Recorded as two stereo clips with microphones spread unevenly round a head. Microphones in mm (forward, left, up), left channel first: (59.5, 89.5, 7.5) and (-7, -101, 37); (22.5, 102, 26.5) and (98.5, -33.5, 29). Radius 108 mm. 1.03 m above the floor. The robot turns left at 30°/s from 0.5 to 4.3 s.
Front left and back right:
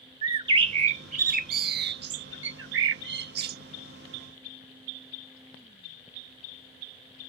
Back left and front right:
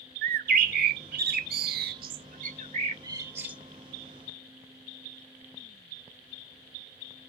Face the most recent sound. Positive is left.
turn(degrees=-165)